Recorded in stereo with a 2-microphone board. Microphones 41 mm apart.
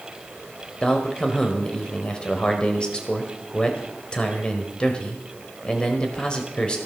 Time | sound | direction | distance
0.8 | a man speaking | 25° left (ahead or behind) | 2.0 m